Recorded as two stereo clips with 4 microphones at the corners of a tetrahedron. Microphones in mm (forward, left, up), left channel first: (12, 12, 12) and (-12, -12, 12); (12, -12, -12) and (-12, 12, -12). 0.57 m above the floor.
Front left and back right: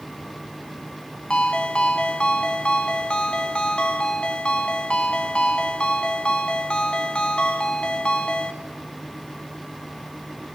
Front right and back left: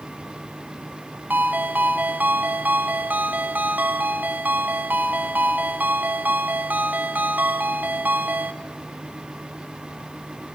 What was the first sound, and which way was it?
A ringtone, 105° left.